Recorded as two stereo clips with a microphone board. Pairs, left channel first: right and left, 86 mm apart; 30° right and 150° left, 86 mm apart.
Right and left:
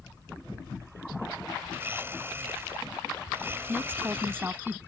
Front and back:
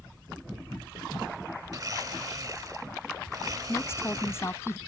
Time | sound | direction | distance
1.7 | a blender | 140° left | ?
3.7 | a woman speaking | 25° left | ?